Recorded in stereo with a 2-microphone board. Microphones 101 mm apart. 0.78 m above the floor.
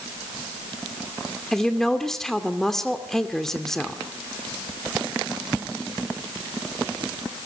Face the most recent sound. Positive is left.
turn(degrees=5)  # may be behind; listen again after turning